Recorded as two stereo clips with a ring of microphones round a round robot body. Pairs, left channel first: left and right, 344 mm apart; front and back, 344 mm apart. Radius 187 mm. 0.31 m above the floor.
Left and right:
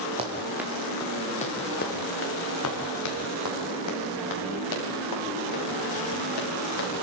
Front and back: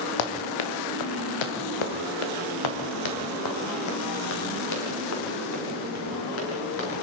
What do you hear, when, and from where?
0.2 s running footsteps: 15° right, 2.5 m; by 7.0 s 60° left, 8 m